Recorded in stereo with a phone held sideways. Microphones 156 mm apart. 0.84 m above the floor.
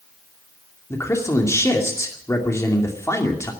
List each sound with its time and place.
0.9 s a man speaking: 20° left (ahead or behind), 2.5 m